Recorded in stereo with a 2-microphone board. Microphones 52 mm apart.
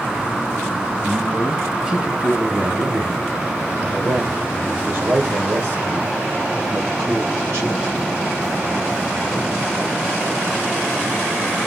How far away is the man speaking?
About 1.0 m.